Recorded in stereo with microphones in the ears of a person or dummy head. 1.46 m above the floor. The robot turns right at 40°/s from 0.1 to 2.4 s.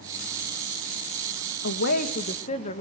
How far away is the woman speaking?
About 1.4 m.